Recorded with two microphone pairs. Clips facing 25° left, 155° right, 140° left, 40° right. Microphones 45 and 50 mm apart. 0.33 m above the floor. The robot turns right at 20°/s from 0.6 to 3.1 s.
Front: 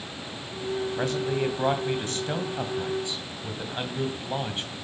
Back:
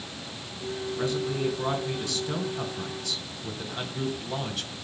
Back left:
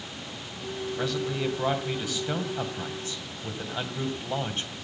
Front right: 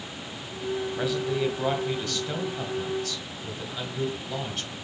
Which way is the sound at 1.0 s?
45° left.